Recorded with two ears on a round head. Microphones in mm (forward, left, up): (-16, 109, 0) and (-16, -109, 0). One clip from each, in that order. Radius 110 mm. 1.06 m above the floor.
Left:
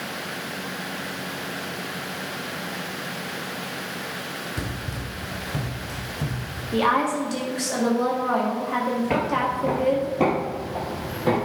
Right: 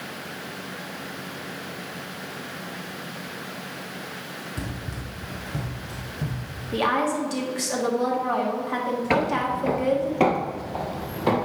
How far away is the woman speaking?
About 1.6 m.